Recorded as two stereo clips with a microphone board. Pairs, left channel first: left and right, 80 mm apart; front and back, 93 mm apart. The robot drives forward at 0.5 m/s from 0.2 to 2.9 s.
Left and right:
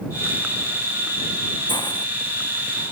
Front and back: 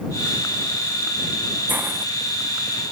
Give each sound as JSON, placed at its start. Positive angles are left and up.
{"t": 1.7, "sound": "a hiss", "azimuth_deg": 110}